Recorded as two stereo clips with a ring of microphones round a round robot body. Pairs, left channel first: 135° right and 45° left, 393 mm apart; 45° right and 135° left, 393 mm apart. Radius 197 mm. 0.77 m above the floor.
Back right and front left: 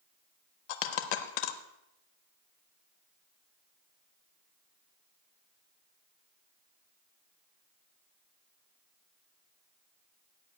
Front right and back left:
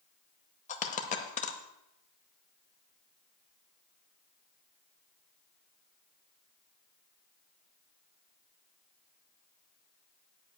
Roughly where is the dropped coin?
Behind right.